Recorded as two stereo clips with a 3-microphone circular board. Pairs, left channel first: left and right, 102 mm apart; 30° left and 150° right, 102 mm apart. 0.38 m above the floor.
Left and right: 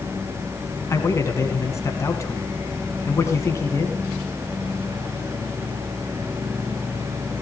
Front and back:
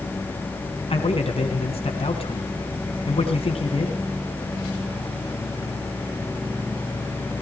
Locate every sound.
0.9 s a man speaking: 30° left, 3.5 m